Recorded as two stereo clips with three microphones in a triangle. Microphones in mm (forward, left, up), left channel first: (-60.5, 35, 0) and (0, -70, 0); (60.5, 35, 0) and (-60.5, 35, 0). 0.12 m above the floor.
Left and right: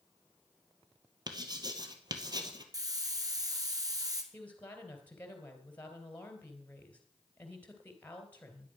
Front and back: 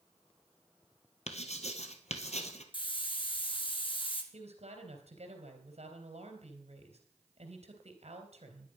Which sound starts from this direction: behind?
A woman speaking, at 4.3 s.